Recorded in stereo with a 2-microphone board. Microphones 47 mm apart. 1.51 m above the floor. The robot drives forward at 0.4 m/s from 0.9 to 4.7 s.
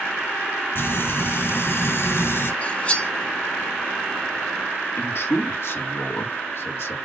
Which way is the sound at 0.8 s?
60° left (ahead or behind).